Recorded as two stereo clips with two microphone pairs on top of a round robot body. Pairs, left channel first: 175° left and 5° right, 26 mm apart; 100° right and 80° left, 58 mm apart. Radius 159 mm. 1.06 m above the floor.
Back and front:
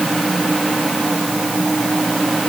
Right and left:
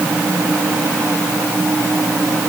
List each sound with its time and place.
Only background noise.